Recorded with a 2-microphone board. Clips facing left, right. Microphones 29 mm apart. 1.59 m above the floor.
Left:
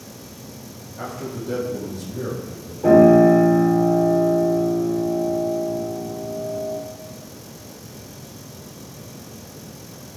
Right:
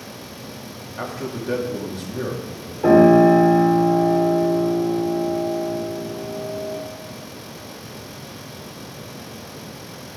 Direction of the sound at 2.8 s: 60° right (ahead or behind).